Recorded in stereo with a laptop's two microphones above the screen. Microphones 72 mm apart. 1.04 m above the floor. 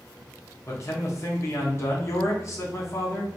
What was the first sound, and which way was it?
A man speaking, 40° left (ahead or behind).